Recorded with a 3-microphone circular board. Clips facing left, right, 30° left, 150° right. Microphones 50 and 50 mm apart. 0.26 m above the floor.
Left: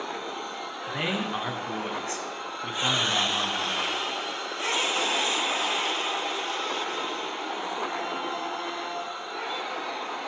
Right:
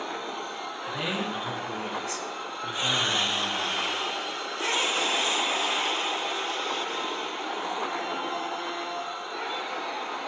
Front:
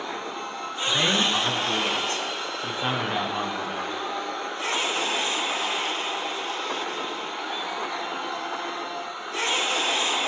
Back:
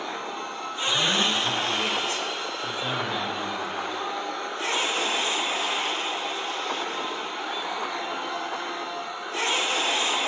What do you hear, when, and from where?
0.9 s a man speaking: 45° left, 2 m